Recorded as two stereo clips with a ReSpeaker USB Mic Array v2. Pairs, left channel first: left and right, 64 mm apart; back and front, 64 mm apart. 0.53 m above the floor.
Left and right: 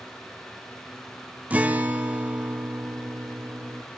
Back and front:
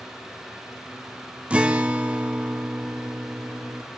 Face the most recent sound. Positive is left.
turn(degrees=-50)